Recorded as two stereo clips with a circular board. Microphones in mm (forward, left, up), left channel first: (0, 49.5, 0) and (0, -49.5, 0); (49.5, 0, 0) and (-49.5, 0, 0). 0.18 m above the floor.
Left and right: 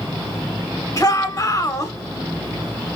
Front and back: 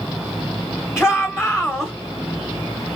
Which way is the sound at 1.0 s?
105° left.